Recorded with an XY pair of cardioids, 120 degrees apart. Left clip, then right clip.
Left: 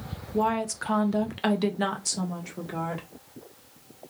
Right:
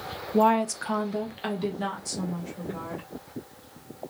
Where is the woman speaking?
35° right, 0.5 m; by 3.1 s 60° left, 1.8 m.